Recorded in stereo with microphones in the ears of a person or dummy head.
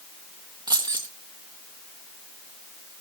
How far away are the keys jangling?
About 1.0 m.